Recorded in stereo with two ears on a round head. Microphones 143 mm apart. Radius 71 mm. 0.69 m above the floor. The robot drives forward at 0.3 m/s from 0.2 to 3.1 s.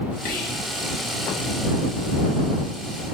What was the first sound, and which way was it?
Whispering, 55° left (ahead or behind).